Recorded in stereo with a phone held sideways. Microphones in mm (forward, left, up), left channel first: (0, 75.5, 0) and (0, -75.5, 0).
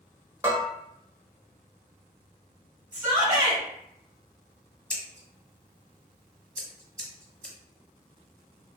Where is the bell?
15° right (ahead or behind), 1.1 m.